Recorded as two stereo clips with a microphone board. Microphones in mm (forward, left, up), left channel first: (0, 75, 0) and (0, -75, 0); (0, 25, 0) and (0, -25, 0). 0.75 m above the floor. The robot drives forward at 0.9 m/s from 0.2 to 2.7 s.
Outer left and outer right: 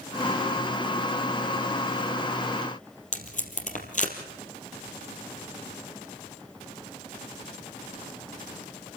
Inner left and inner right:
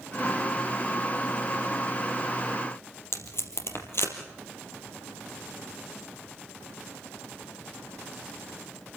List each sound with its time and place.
3.1 s tape being pulled: 55° left (ahead or behind), 3.5 m